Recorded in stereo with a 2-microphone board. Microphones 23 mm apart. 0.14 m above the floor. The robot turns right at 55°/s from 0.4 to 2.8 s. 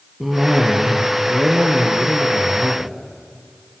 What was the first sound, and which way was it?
A cough, 165° right.